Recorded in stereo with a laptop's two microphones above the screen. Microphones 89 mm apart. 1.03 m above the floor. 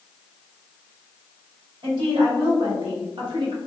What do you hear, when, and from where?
1.8 s a woman speaking: 75° right (ahead or behind), 1.7 m; by 3.6 s 60° right (ahead or behind), 0.7 m